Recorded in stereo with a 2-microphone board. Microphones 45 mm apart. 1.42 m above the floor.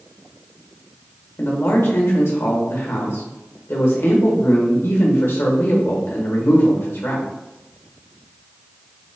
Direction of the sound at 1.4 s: 65° left (ahead or behind).